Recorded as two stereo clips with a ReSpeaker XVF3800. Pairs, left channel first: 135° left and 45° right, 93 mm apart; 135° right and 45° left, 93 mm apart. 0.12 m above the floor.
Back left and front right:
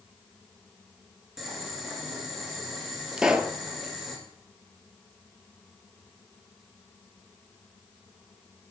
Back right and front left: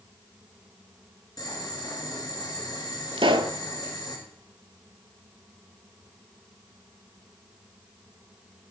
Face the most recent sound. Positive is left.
turn(degrees=35)